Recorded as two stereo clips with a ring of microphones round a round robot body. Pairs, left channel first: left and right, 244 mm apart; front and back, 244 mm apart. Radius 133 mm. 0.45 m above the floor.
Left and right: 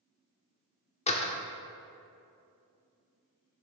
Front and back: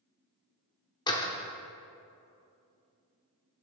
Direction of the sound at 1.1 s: 55° left.